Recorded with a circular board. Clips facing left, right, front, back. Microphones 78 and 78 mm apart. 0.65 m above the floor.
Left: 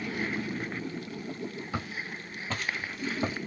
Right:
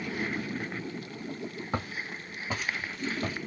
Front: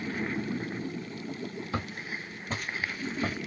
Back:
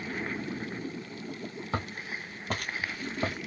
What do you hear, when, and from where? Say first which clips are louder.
1.7 s footsteps: right 1 dB, back 3 dB; 135° right, 1.7 m; by 3.4 s 155° left, 1.5 m